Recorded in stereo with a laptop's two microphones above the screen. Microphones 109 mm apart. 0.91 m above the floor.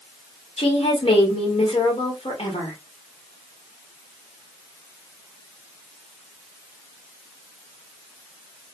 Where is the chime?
No chime in this recording.